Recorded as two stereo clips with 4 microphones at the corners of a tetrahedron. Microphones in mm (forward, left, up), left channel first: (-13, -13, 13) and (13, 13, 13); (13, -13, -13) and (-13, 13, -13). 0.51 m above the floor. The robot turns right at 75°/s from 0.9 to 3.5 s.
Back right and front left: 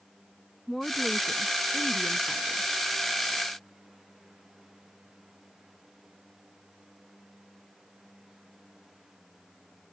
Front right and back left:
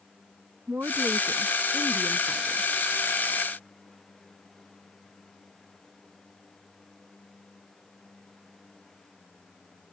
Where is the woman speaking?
140° left; by 2.7 s 85° right.